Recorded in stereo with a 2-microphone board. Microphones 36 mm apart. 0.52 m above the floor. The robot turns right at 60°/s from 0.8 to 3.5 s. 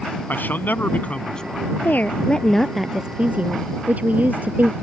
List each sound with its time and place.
0.3 s a man speaking: 120° left; by 1.7 s 175° left
1.8 s a woman speaking: 125° left; by 4.7 s 135° right